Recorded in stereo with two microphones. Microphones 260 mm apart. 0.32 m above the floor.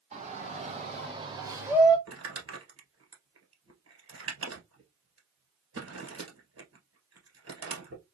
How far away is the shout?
About 2.5 m.